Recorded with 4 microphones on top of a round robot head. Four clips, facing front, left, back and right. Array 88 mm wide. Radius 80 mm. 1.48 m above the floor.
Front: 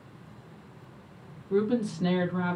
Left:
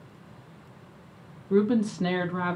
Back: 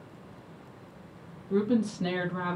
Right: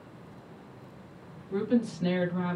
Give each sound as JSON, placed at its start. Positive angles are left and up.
{"t": 1.5, "sound": "a woman speaking", "azimuth_deg": 95, "distance_m": 1.0}